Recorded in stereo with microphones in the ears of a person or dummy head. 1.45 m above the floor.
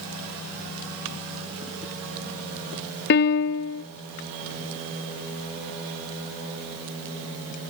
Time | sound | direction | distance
3.1 | a piano | 55° left (ahead or behind) | 1.1 m